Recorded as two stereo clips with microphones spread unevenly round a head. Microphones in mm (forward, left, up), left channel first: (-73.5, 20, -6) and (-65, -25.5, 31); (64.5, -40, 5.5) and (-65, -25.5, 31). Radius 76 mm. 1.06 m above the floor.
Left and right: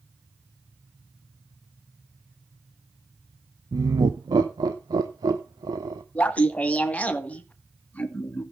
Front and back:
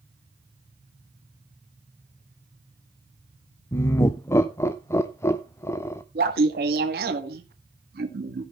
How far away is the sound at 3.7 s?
About 0.6 m.